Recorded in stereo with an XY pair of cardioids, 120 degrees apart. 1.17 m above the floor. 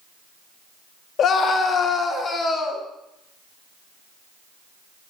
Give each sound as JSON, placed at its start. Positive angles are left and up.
{"t": 1.2, "sound": "a scream", "azimuth_deg": 55, "distance_m": 1.6}